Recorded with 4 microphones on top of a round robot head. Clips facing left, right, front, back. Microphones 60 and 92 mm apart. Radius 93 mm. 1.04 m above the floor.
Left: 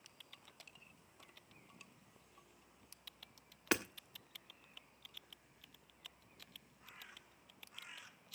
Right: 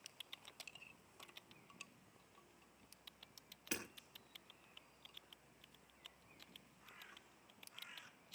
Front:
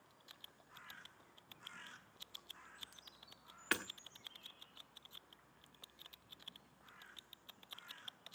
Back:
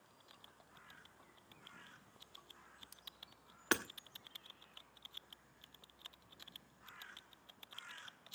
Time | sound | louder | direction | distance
3.7 | hammering | left 11 dB, back 4 dB | 115° left | 1.3 m